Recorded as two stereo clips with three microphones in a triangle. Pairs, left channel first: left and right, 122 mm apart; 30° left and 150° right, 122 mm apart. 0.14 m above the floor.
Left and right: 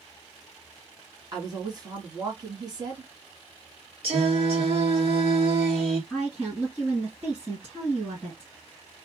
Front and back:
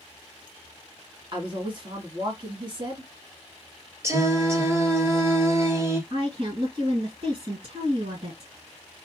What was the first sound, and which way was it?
A woman speaking, 130° right.